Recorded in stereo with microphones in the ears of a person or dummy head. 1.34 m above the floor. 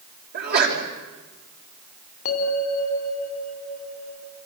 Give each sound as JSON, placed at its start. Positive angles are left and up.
{"t": 0.3, "sound": "a sneeze", "side_deg": -50, "distance_m": 5.0}
{"t": 2.2, "sound": "a bell", "side_deg": 40, "distance_m": 3.0}